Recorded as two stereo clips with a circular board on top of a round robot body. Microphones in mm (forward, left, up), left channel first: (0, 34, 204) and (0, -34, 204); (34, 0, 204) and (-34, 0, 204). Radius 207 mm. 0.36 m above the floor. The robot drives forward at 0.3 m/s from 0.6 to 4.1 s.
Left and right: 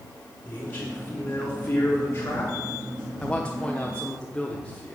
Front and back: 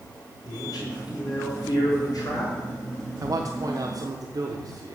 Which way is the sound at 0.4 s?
30° left.